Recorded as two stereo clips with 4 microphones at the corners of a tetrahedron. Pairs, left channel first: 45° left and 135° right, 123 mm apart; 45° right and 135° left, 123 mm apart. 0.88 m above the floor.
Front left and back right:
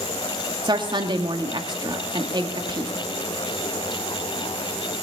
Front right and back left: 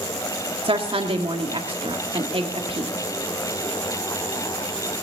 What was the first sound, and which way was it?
A woman speaking, 175° left.